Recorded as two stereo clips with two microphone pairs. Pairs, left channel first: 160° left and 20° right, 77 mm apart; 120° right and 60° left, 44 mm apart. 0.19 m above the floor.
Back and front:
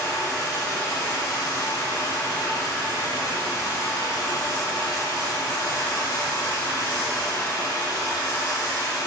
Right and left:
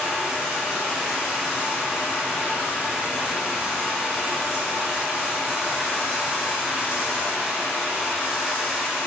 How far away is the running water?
About 0.9 m.